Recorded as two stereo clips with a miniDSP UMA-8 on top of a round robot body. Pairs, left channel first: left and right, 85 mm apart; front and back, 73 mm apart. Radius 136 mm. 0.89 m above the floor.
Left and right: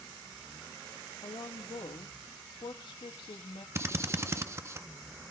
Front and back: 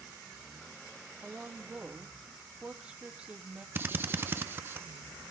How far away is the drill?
About 0.8 m.